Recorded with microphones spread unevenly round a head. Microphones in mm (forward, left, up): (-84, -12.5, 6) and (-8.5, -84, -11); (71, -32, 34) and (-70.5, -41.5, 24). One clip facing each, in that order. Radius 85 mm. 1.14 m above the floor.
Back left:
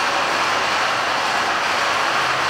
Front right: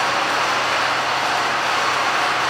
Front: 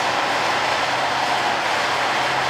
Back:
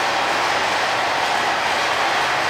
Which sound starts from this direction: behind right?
Running water, at 0.0 s.